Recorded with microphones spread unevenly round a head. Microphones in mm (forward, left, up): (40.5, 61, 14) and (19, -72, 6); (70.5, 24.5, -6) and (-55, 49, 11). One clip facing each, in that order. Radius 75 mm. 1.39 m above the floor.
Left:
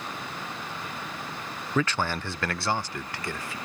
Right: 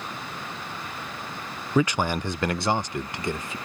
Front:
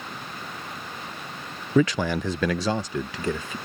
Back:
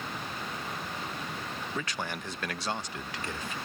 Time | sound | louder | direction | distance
1.8 | a man speaking | right 4 dB, front 17 dB | 25° right | ?